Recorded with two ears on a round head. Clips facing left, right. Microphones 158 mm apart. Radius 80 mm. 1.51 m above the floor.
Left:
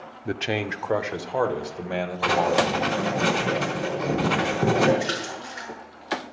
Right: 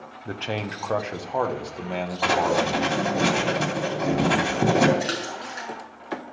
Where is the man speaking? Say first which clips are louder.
Left 3 dB; 20° left (ahead or behind), 0.5 m; by 3.2 s 5° left (ahead or behind), 2.5 m.